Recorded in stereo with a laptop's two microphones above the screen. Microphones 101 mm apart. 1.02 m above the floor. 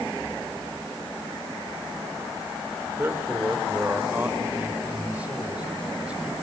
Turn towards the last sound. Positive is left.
turn(degrees=-10)  # may be behind; listen again after turning